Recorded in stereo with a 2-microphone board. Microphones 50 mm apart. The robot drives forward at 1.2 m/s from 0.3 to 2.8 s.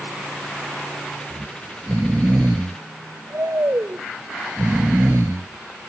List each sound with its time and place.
1.3 s snoring: 45° right (ahead or behind); by 5.5 s 90° right